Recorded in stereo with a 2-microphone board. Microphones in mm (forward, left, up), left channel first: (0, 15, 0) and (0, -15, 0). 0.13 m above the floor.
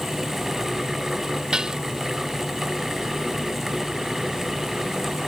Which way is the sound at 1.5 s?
25° right (ahead or behind).